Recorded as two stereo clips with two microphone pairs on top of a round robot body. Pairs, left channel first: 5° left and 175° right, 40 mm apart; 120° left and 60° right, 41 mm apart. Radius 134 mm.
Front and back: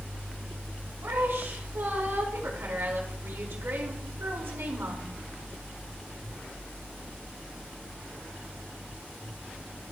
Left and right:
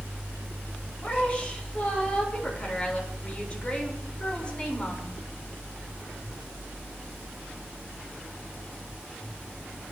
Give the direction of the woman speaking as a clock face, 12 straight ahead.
6 o'clock.